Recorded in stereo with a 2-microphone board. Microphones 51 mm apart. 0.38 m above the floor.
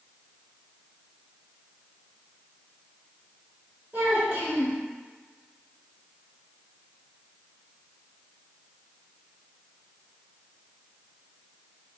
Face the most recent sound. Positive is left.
turn(degrees=-35)  # may be behind; listen again after turning